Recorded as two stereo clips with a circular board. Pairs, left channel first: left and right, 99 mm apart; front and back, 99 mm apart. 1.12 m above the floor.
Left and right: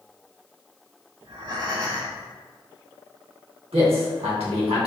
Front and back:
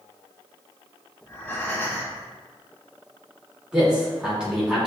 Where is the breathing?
65° right, 1.4 m.